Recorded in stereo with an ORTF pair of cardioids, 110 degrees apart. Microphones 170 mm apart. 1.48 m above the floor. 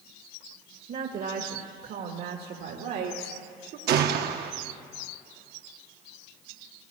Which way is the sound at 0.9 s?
55° right.